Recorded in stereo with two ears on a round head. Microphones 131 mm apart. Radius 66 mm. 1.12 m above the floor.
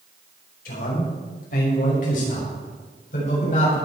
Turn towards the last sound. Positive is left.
turn(degrees=60)  # may be behind; listen again after turning